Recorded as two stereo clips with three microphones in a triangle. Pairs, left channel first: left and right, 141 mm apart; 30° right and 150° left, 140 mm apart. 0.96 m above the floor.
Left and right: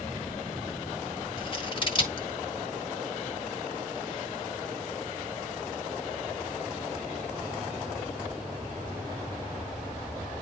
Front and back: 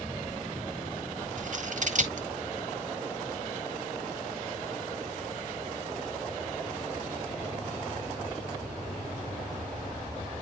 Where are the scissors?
140° left, 1.6 m.